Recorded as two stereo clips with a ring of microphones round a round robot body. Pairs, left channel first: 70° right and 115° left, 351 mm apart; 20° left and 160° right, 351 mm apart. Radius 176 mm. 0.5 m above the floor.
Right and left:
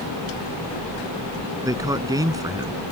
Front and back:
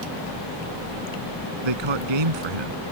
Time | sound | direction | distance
1.6 | a man speaking | 165° right | ?